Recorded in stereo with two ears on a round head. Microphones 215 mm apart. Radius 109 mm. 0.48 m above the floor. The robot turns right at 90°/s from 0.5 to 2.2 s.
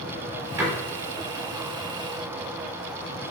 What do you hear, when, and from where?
0.6 s a door slam: 10° right (ahead or behind), 6 m; by 0.7 s 20° right (ahead or behind), 6 m